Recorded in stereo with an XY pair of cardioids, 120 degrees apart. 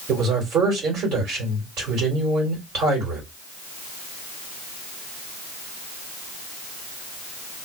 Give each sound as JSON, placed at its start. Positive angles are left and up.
{"t": 0.1, "sound": "a man speaking", "azimuth_deg": -65, "distance_m": 2.5}